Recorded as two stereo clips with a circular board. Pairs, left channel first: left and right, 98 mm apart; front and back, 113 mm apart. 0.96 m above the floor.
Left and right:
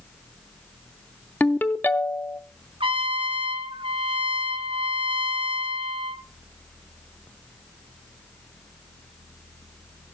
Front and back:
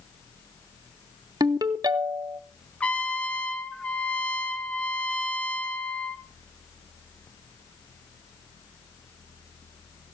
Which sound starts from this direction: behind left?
A ringtone, at 1.4 s.